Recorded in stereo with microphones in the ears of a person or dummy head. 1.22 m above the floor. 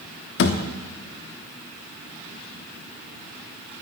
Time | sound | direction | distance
0.4 | a thud | 60° left (ahead or behind) | 1.0 m